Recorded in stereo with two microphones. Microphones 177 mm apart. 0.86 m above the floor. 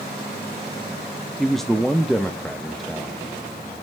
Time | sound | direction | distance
1.4 | a man speaking | centre (ahead or behind) | 0.6 m